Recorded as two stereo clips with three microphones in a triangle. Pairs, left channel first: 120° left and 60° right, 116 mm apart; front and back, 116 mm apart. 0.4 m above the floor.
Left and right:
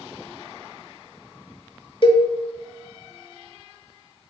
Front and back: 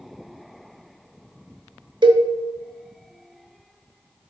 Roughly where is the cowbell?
Behind left.